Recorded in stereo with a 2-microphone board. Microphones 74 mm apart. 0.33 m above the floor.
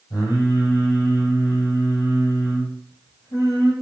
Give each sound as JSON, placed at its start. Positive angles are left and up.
{"t": 0.1, "sound": "singing", "side_deg": 60, "distance_m": 3.0}